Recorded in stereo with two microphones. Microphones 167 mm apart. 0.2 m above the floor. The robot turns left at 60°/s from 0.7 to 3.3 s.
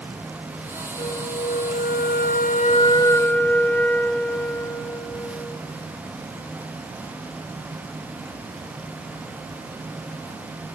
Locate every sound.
1.0 s a flute: 150° left, 0.6 m; by 5.6 s 10° left, 0.6 m